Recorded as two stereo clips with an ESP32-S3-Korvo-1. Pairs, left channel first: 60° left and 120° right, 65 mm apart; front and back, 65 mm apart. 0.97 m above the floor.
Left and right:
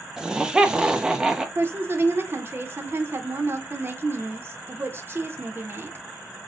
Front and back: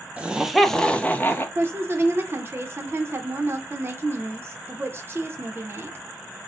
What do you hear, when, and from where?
0.2 s laughter: straight behind, 0.5 m; by 1.4 s 45° right, 0.7 m
1.6 s a woman speaking: 150° right, 0.7 m